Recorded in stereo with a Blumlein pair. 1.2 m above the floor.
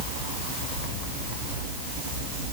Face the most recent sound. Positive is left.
No sound to turn to.